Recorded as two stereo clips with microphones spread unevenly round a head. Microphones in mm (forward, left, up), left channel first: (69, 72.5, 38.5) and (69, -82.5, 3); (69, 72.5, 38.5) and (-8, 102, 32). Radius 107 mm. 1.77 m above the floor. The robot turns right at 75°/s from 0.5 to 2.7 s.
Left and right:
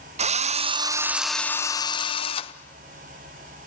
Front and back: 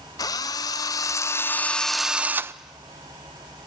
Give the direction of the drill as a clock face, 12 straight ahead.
2 o'clock.